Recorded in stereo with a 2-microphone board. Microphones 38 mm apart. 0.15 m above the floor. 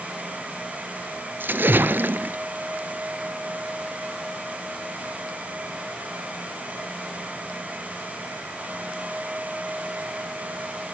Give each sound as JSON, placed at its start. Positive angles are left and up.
{"t": 1.4, "sound": "a splash", "side_deg": -65, "distance_m": 0.7}